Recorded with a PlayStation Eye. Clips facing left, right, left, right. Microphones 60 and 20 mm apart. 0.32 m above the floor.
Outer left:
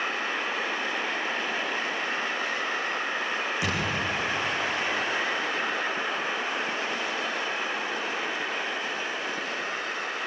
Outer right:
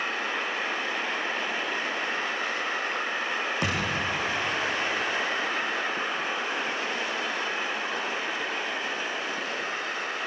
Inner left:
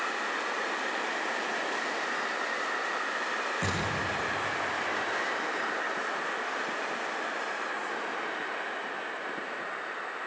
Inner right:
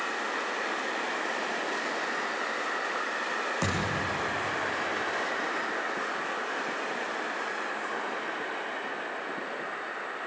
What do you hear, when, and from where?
3.6 s a thud: 55° right (ahead or behind), 10 m